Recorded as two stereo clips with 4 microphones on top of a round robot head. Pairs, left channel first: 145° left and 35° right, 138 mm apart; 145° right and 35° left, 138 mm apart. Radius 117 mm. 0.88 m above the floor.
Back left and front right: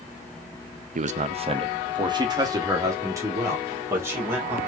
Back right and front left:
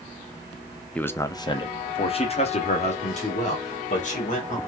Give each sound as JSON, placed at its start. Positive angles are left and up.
{"t": 0.9, "sound": "a man speaking", "azimuth_deg": -65, "distance_m": 0.6}